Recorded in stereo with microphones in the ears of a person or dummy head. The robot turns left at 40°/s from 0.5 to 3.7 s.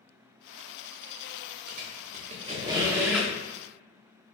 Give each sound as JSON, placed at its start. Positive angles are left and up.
{"t": 1.7, "sound": "a squeak", "side_deg": -55, "distance_m": 1.2}